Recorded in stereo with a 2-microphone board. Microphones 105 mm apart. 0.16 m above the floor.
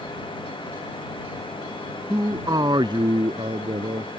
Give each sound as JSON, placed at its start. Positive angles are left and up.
{"t": 2.1, "sound": "a man speaking", "side_deg": -25}